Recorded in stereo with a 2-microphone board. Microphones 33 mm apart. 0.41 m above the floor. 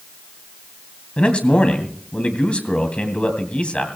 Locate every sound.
1.2 s a man speaking: 40° left (ahead or behind), 2.5 m